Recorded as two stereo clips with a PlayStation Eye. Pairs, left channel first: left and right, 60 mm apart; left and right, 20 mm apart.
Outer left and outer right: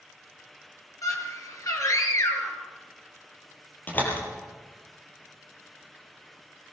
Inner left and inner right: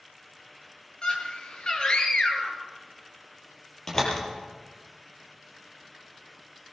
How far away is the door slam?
About 6 m.